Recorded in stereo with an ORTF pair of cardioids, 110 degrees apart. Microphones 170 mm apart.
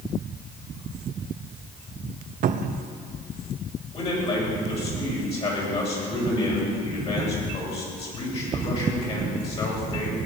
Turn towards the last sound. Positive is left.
turn(degrees=40)